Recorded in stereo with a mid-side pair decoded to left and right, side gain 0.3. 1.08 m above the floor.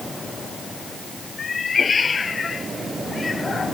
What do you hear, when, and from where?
1.4 s a cat meowing: 55° left; by 3.7 s 40° left